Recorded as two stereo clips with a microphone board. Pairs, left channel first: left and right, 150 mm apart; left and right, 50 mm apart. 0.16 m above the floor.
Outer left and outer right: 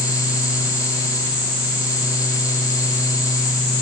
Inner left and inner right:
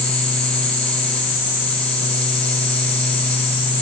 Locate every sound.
Only background noise.